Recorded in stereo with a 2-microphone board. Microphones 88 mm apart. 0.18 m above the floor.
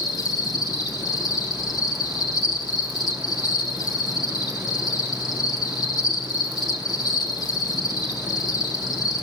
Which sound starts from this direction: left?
An insect, at 0.0 s.